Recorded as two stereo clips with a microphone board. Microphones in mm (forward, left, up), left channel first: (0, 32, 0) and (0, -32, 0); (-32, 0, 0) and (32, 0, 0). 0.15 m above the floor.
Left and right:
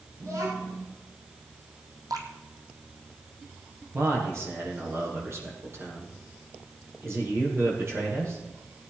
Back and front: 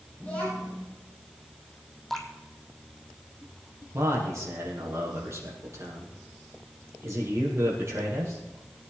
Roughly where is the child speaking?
Behind right.